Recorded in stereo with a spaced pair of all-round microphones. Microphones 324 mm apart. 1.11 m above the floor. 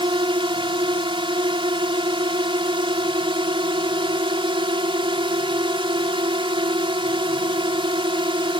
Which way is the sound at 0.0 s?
15° right (ahead or behind).